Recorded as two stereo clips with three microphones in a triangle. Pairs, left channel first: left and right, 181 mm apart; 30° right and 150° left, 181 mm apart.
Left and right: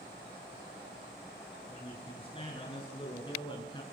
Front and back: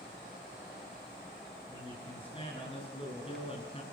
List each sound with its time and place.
1.7 s a man speaking: 30° left, 6.5 m; by 3.8 s 25° left, 5 m